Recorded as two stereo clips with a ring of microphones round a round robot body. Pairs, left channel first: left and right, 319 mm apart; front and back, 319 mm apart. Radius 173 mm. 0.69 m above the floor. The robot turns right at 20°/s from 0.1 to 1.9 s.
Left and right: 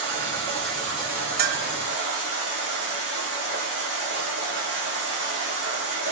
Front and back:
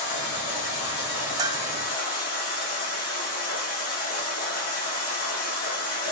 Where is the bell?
110° right, 0.9 m; by 1.7 s 105° right, 0.9 m.